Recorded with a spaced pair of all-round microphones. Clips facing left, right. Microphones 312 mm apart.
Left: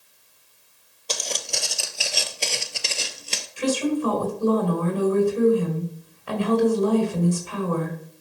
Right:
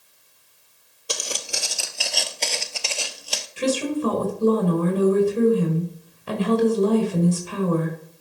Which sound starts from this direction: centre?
Footsteps, at 1.1 s.